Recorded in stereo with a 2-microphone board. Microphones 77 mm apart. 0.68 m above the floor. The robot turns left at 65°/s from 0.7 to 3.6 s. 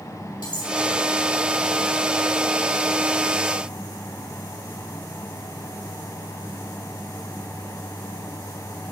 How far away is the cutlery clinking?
About 4 m.